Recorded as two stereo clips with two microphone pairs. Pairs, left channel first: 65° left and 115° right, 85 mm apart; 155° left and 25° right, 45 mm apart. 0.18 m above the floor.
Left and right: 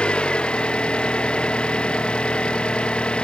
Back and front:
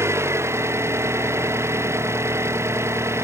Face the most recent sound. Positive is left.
turn(degrees=-15)